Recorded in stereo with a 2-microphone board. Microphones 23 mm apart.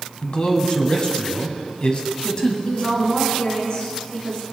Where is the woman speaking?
40° left (ahead or behind), 3 m.